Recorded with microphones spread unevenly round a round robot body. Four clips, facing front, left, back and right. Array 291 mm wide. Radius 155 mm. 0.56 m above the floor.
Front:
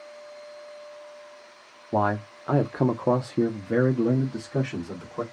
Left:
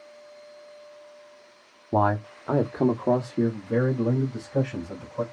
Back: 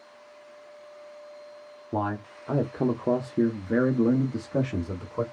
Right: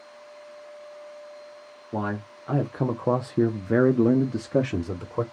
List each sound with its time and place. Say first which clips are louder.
1.9 s a man speaking: left 7 dB, front 5 dB; 70° left, 0.9 m; by 5.2 s 95° right, 1.2 m